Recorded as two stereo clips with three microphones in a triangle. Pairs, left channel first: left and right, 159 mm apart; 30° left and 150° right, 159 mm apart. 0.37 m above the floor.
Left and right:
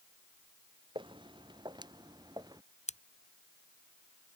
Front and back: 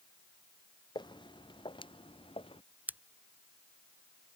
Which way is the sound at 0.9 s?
30° right.